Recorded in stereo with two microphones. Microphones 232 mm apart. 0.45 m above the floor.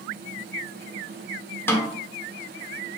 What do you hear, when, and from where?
1.7 s a snare drum: 10° left (ahead or behind), 0.6 m